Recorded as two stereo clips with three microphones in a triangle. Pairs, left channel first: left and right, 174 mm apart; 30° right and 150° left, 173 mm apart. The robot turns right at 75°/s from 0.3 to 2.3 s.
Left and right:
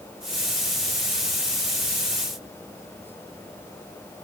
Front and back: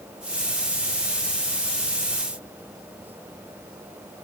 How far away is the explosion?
I don't hear an explosion.